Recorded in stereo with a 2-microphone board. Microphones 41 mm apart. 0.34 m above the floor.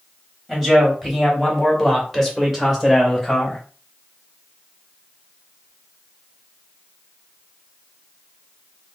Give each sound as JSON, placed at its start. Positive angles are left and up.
{"t": 0.5, "sound": "a man speaking", "side_deg": 0, "distance_m": 2.0}